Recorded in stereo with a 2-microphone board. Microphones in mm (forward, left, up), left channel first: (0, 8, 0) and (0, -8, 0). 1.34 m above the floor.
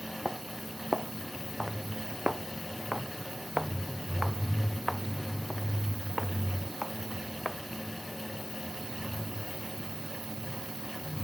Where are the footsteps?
60° right (ahead or behind); by 7.6 s 15° right (ahead or behind).